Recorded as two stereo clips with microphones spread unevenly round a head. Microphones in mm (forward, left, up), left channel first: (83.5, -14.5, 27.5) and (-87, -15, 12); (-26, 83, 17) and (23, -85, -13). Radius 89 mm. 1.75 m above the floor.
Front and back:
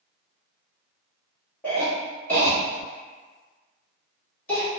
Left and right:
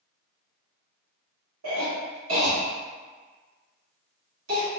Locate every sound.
1.6 s a cough: 80° right, 1.2 m